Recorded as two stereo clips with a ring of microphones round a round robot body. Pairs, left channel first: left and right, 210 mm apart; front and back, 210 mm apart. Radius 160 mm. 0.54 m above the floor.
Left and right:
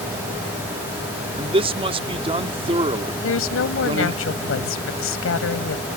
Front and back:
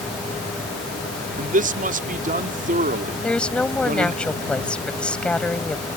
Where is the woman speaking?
85° left.